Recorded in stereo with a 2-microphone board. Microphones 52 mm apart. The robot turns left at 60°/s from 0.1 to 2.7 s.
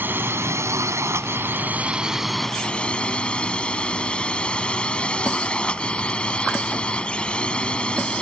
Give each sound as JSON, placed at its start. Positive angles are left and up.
{"t": 0.0, "sound": "a drone", "azimuth_deg": -45}